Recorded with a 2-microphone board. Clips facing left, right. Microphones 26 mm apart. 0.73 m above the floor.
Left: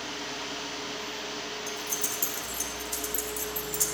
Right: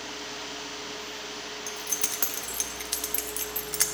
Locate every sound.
1.7 s keys jangling: 80° right, 0.7 m